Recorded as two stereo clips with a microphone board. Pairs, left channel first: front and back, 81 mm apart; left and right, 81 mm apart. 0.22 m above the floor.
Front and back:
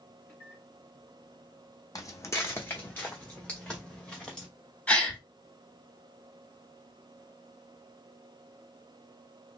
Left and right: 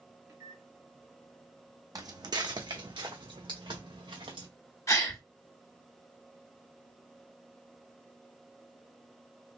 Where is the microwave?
55° right, 1.8 m.